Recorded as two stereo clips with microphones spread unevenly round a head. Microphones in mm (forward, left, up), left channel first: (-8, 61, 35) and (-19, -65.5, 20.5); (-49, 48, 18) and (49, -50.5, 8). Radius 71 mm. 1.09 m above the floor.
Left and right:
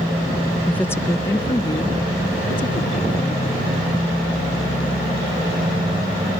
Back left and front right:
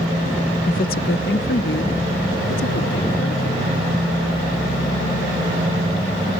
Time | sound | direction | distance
0.7 | a woman speaking | 170° left | ?